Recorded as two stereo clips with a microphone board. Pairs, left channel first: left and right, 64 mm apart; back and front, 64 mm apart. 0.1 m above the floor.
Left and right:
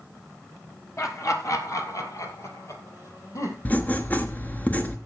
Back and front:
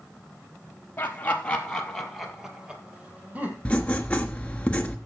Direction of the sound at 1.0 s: 125° left.